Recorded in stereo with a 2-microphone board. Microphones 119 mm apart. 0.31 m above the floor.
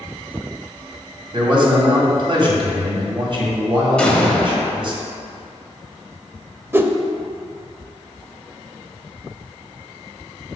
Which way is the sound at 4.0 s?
10° left (ahead or behind).